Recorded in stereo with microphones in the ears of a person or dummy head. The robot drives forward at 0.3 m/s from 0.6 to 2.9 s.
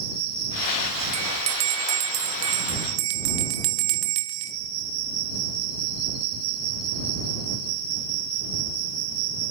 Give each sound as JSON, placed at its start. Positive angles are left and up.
{"t": 0.0, "sound": "an insect", "side_deg": -60, "distance_m": 7.0}
{"t": 1.1, "sound": "a bell", "side_deg": -85, "distance_m": 1.4}